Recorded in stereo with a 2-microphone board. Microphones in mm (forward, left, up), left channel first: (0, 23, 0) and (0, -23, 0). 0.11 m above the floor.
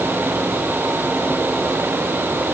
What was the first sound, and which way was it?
Only background noise.